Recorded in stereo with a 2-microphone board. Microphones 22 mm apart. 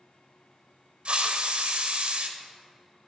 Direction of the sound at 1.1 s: 50° right (ahead or behind).